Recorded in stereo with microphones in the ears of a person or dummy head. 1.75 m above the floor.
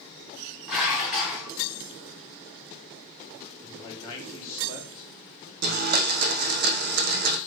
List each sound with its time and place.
0.7 s dishes clattering: centre (ahead or behind), 0.8 m
3.6 s a man speaking: 25° left (ahead or behind), 0.8 m
5.6 s a blender: 45° right (ahead or behind), 0.5 m